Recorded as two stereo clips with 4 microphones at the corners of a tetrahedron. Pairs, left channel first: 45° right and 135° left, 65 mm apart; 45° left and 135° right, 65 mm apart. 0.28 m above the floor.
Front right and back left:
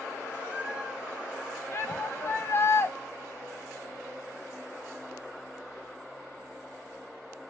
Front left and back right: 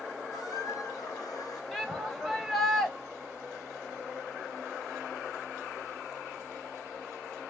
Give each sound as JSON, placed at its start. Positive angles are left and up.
{"t": 0.3, "sound": "a squeak", "azimuth_deg": 60, "distance_m": 1.7}
{"t": 1.7, "sound": "a shout", "azimuth_deg": -40, "distance_m": 1.3}